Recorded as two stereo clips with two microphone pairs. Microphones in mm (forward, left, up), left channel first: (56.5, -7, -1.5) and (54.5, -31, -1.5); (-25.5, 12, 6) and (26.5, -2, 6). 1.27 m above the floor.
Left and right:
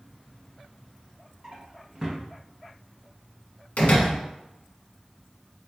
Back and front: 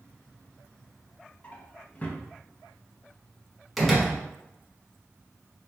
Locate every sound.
1.4 s a drawer: 145° right, 0.6 m
3.8 s a door slam: 75° left, 1.0 m